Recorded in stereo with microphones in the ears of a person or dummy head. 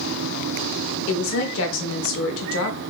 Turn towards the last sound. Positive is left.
turn(degrees=80)